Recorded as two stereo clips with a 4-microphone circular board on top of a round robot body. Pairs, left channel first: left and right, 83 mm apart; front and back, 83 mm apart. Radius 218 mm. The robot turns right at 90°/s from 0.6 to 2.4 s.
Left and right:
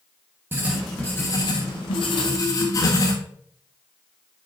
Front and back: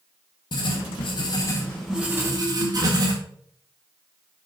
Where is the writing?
25° right, 1.1 m; by 3.1 s 140° left, 1.1 m.